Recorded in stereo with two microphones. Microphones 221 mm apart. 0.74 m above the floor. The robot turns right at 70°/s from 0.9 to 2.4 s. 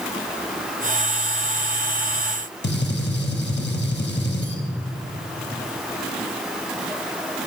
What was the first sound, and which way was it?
A gunshot, 50° left (ahead or behind).